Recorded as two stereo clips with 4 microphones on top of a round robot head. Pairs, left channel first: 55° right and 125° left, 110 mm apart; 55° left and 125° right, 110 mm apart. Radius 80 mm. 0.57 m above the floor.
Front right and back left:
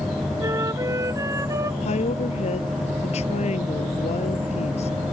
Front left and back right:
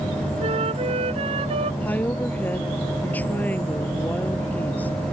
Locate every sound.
0.4 s a flute: 165° right
1.8 s a woman speaking: 25° right